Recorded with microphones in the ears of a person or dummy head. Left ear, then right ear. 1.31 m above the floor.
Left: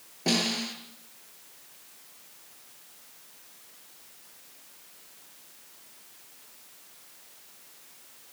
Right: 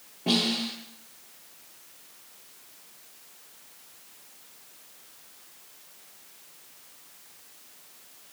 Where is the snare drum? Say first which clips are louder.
Right 1 dB; 80° left, 8.5 m.